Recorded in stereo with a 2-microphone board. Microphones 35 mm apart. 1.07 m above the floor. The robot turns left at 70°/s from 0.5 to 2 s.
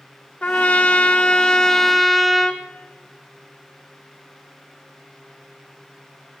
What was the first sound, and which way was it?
A trumpet, 105° left.